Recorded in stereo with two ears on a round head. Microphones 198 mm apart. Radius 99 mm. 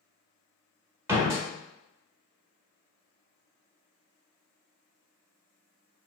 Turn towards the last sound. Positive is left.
turn(degrees=-15)  # may be behind; listen again after turning